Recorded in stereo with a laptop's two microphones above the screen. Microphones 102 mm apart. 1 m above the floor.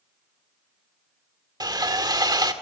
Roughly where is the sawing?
Right.